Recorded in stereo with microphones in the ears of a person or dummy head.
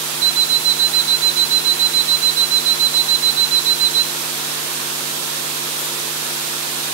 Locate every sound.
0.2 s an alarm clock: 40° right (ahead or behind), 1.1 m